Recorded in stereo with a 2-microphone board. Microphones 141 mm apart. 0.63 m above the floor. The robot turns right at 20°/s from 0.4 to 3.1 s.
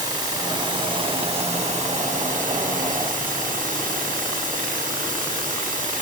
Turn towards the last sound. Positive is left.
turn(degrees=-95)